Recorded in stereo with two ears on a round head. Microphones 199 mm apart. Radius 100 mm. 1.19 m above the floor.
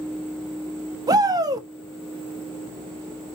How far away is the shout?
About 1.9 m.